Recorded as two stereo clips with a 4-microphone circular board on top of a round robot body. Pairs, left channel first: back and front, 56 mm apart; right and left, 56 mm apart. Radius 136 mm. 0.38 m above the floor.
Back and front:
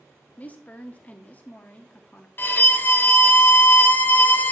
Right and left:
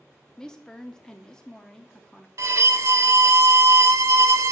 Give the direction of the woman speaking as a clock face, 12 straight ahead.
5 o'clock.